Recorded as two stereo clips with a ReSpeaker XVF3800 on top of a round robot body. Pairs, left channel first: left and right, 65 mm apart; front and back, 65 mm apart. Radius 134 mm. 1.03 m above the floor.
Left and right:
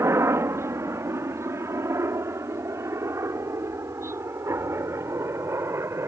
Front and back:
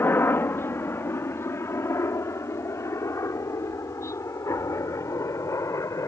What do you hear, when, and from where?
0.0 s a helicopter: 50° right; by 6.1 s 40° right